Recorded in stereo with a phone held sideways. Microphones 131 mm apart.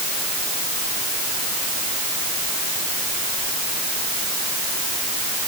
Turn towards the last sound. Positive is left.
No sound to turn to.